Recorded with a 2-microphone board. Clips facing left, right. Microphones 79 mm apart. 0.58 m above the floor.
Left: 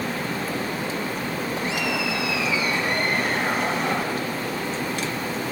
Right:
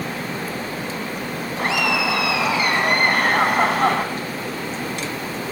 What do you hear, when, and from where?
1.6 s laughter: 75° right (ahead or behind), 4 m